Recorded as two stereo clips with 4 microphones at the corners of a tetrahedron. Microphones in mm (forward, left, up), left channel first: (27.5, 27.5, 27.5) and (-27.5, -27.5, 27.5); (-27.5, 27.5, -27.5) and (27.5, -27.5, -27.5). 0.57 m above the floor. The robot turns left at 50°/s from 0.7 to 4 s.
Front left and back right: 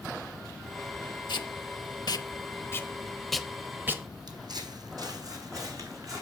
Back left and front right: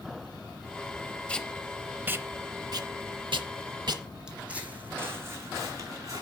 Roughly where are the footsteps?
Behind right.